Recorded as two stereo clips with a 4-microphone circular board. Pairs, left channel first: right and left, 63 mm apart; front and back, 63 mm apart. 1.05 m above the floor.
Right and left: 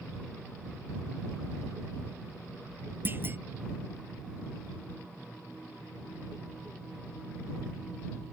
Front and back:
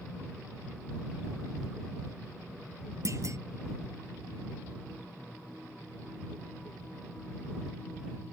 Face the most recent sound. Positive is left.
turn(degrees=145)